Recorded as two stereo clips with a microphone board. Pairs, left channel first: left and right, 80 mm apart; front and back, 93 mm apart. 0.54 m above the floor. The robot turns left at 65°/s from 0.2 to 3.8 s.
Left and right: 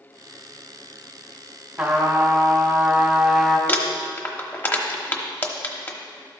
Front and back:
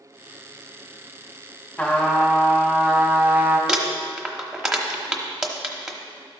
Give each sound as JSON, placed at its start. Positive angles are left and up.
{"t": 1.8, "sound": "a trumpet", "azimuth_deg": -40, "distance_m": 1.2}
{"t": 3.7, "sound": "crumpling", "azimuth_deg": 110, "distance_m": 1.0}